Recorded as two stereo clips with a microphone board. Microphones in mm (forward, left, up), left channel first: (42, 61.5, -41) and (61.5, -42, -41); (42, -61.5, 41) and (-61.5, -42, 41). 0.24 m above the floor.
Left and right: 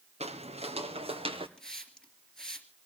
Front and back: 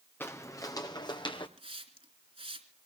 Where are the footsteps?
80° right, 2.0 m; by 1.5 s 50° right, 3 m.